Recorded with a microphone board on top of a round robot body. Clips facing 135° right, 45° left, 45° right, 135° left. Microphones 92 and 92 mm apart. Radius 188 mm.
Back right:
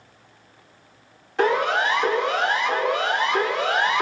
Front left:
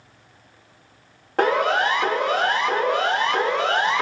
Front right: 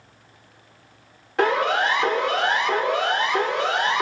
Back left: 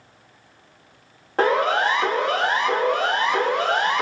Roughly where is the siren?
Left.